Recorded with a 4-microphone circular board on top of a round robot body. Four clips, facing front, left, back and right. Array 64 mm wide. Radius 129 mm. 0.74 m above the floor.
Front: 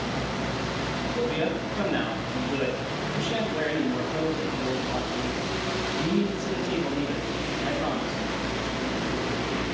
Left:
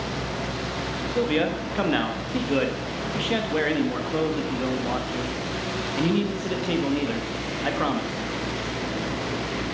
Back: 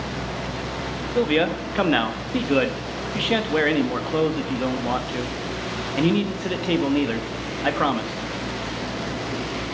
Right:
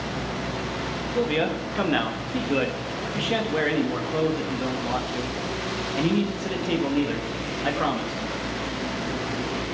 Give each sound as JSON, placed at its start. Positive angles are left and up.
{"t": 1.1, "sound": "a man speaking", "azimuth_deg": 180, "distance_m": 1.5}